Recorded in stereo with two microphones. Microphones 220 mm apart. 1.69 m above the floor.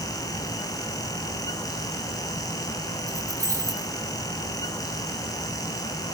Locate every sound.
3.1 s keys jangling: 15° right (ahead or behind), 4 m